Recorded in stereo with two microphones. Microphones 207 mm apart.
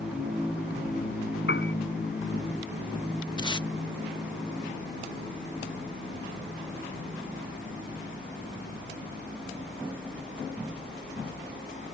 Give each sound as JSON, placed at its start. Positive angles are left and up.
{"t": 1.5, "sound": "a piano", "side_deg": 60}
{"t": 3.4, "sound": "tape being pulled", "side_deg": 20}